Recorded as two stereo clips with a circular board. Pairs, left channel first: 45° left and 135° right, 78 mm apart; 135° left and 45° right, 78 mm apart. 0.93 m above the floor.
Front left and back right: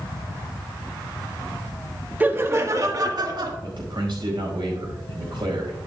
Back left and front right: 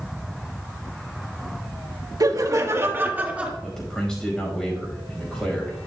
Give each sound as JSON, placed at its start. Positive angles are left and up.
{"t": 2.2, "sound": "laughter", "azimuth_deg": -70, "distance_m": 1.3}
{"t": 3.6, "sound": "a man speaking", "azimuth_deg": -145, "distance_m": 5.0}